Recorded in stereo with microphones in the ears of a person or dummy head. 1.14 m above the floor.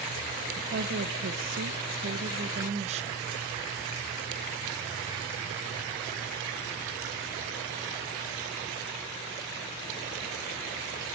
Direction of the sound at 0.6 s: 45° right (ahead or behind).